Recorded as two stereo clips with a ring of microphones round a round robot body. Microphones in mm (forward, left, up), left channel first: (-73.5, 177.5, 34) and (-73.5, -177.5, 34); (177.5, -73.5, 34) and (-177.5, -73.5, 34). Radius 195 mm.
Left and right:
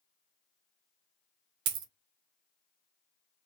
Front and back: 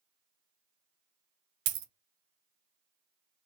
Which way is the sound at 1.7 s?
135° right.